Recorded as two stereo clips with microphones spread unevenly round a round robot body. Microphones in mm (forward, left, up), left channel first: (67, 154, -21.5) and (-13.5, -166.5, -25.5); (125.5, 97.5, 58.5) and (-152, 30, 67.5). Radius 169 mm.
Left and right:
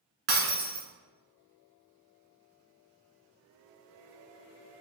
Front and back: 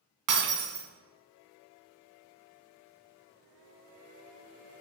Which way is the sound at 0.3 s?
165° right.